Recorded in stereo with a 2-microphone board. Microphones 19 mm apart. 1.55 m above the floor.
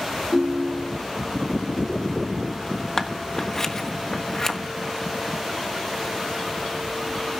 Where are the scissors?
25° left (ahead or behind), 1.3 m.